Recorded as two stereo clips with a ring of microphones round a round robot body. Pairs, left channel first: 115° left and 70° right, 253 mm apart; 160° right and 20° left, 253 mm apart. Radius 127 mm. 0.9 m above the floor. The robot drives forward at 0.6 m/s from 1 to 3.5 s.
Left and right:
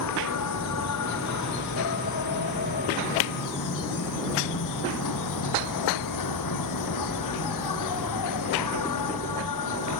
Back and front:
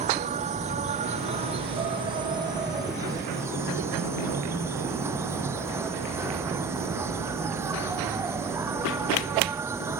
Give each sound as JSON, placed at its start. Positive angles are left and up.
{"t": 0.0, "sound": "an insect", "azimuth_deg": 85}